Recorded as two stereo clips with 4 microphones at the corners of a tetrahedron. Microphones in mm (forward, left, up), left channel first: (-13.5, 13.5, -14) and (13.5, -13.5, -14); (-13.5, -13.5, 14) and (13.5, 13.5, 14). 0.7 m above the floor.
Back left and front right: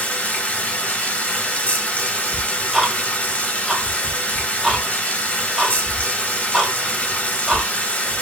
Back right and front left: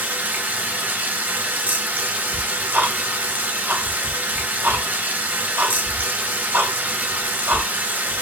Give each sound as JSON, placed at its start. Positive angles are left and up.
{"t": 0.0, "sound": "running water", "azimuth_deg": 80, "distance_m": 1.3}
{"t": 2.3, "sound": "ticking", "azimuth_deg": 45, "distance_m": 2.0}